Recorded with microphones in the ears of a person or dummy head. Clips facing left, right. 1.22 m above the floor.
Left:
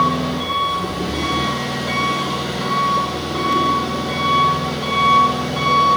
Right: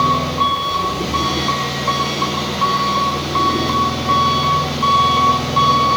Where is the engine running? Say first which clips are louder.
Right 1 dB; 10° left (ahead or behind), 7 m.